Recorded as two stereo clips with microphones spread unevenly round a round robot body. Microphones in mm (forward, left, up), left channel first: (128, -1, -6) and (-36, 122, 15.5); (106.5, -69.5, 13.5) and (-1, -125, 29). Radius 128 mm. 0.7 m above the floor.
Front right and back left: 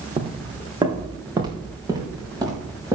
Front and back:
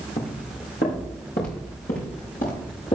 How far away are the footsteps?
About 2.0 m.